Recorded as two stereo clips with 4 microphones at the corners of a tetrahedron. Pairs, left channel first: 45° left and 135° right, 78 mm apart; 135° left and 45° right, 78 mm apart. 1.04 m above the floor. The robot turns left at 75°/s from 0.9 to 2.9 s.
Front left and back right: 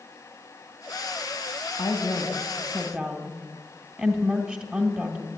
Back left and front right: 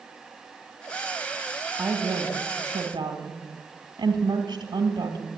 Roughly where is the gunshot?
No gunshot in this recording.